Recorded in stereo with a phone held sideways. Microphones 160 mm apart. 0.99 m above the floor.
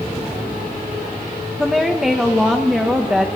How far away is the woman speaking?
About 0.8 m.